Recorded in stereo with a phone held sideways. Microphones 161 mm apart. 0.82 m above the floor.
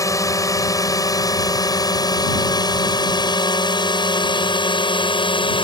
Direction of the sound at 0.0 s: 20° left (ahead or behind).